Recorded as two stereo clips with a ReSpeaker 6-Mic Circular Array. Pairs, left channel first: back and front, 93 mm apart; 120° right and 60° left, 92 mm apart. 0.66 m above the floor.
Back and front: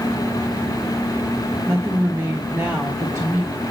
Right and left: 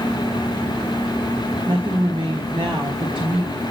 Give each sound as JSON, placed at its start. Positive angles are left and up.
{"t": 1.7, "sound": "a woman speaking", "azimuth_deg": 50, "distance_m": 1.4}